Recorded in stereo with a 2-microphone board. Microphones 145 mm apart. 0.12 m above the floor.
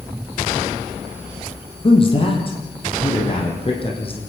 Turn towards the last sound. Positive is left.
turn(degrees=35)  # may be behind; listen again after turning